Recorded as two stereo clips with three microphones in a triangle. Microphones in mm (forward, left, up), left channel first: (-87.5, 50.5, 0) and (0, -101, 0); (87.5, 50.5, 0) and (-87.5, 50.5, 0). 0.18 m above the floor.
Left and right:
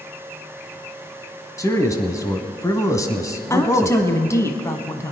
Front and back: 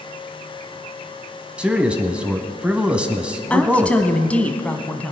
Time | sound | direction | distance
1.6 | a man speaking | 110° left | 1.0 m
3.5 | a woman speaking | 75° left | 1.1 m